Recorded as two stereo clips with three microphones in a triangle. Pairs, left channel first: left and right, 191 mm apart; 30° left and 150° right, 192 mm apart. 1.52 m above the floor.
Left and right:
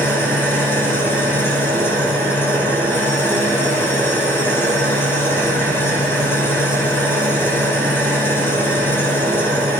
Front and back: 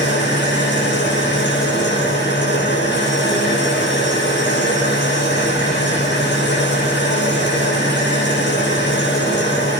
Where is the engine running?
10° left, 5.5 m.